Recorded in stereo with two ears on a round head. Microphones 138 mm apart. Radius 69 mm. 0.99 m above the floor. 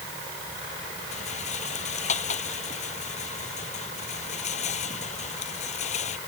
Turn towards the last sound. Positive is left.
turn(degrees=50)  # may be behind; listen again after turning